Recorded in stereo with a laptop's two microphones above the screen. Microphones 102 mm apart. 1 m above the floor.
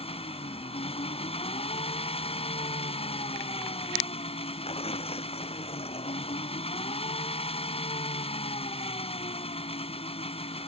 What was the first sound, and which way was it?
An engine running, 80° left.